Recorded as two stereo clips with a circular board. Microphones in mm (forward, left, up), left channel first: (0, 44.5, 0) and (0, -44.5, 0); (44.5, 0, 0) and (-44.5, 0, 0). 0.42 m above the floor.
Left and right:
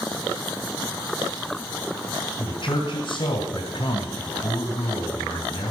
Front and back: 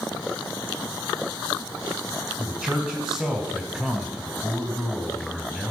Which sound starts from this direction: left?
A man speaking, at 2.4 s.